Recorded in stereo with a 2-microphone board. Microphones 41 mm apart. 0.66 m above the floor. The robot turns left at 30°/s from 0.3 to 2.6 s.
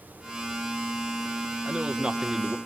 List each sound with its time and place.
1.6 s a man speaking: 30° right (ahead or behind), 1.3 m; by 2.6 s 20° right (ahead or behind), 1.3 m